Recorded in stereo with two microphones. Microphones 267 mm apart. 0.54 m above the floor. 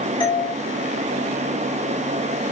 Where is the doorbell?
15° left (ahead or behind), 3 m.